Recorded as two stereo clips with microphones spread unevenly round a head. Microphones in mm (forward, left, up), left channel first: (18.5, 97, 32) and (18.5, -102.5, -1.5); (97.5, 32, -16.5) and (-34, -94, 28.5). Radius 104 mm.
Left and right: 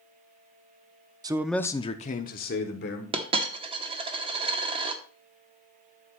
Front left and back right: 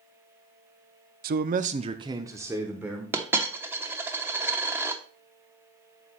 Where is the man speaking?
120° right, 0.5 m; by 3.0 s 130° left, 1.4 m.